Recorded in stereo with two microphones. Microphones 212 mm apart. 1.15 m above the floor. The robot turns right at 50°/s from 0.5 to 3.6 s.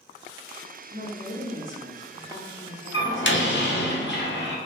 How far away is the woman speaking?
About 1.0 m.